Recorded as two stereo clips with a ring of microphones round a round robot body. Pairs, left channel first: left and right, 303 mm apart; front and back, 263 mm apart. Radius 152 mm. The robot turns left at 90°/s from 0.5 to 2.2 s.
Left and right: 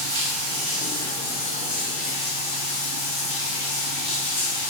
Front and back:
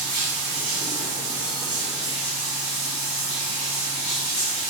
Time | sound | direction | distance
0.0 | running water | 145° right | 1.9 m